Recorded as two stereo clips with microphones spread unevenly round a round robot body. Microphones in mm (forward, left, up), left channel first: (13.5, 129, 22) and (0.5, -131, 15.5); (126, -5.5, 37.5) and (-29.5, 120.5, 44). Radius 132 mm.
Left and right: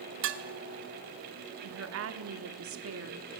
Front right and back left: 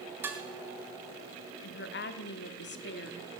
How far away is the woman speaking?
About 1.4 m.